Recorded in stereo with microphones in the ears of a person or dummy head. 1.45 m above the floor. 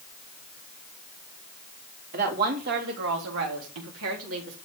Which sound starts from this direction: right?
A woman speaking, at 2.1 s.